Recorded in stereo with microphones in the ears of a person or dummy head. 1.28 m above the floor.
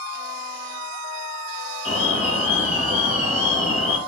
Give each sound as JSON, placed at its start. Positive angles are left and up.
{"t": 1.9, "sound": "an alarm", "side_deg": 40, "distance_m": 1.9}